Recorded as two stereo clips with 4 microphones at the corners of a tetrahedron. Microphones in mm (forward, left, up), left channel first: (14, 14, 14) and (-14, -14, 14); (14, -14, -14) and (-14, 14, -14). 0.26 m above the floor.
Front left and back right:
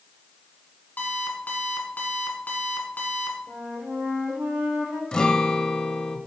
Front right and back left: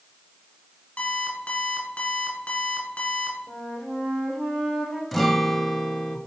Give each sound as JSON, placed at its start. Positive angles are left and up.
{"t": 1.0, "sound": "an alarm clock", "azimuth_deg": 0, "distance_m": 1.5}
{"t": 3.5, "sound": "a flute", "azimuth_deg": -120, "distance_m": 2.0}
{"t": 5.1, "sound": "a guitar", "azimuth_deg": 30, "distance_m": 0.6}